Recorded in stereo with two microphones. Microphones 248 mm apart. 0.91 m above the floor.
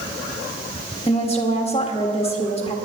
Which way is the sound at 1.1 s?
25° left (ahead or behind).